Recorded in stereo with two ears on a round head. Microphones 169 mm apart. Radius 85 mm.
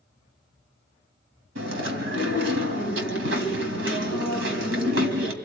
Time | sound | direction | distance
1.6 | chewing | 75° right (ahead or behind) | 2.5 m